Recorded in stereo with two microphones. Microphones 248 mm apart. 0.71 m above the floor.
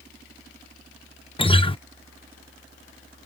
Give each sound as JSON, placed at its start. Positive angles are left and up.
{"t": 1.4, "sound": "a guitar", "side_deg": 20}